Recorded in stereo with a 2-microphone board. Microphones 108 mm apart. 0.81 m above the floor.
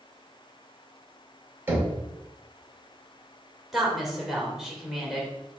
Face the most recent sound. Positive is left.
turn(degrees=0)  # may be behind; listen again after turning